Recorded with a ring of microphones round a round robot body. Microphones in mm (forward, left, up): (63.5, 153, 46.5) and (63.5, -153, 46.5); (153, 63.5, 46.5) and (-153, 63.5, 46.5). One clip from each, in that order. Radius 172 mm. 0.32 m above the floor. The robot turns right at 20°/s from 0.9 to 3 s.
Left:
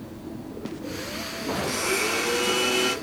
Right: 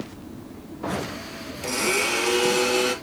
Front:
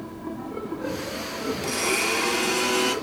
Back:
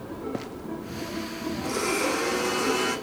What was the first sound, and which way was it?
A blender, 35° right.